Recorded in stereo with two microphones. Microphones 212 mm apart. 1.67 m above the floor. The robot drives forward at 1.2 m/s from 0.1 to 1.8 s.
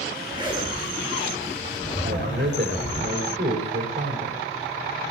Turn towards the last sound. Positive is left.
turn(degrees=-50)  # may be behind; listen again after turning